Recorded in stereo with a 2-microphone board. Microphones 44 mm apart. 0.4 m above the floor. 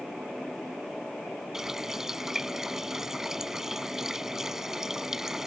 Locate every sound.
1.5 s a running tap: 10° right (ahead or behind)